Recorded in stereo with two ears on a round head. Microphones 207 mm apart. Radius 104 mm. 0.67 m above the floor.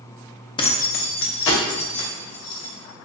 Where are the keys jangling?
20° left (ahead or behind), 0.5 m; by 2.7 s 70° left (ahead or behind), 2 m.